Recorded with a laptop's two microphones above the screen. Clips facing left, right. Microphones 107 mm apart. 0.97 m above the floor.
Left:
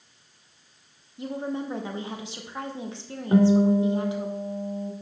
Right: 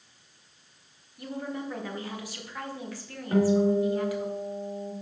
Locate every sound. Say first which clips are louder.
1.2 s a woman speaking: left 4 dB; 25° left (ahead or behind), 0.8 m
3.3 s a guitar: left 4 dB; 25° left (ahead or behind), 1.4 m